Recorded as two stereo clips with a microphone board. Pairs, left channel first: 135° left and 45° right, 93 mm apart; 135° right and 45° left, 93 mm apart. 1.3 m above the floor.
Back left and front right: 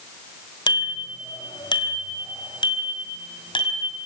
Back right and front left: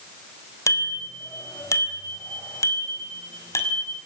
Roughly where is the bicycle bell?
Behind.